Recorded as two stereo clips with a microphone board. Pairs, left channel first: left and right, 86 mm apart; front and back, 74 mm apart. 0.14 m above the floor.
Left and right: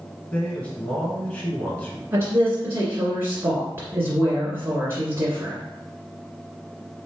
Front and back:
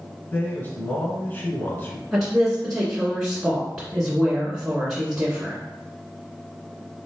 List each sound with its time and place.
0.3 s a man speaking: 35° left, 1.7 m
2.1 s a woman speaking: 110° right, 1.7 m